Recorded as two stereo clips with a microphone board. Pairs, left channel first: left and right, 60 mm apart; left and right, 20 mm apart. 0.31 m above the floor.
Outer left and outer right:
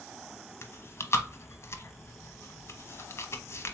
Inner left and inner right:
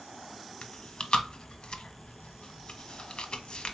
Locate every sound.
0.6 s chewing: 45° left (ahead or behind), 0.6 m